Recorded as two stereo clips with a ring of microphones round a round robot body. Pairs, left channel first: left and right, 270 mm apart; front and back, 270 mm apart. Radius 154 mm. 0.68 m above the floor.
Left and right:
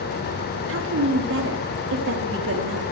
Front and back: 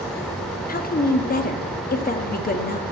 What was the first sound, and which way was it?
A woman speaking, 55° right.